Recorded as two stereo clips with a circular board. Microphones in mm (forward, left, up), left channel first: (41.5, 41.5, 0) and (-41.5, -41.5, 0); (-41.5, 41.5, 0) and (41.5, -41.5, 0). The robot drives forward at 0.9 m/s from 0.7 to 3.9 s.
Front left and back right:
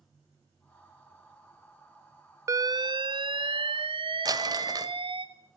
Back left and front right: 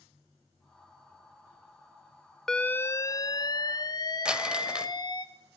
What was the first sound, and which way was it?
An alarm, 145° right.